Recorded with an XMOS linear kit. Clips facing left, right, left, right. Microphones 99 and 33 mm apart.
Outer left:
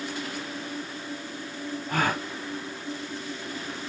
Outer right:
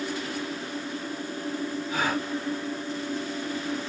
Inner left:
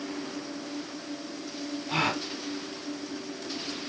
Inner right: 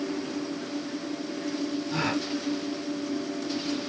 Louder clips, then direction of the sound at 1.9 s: Outer left 2 dB, inner left 3 dB; 60° left (ahead or behind).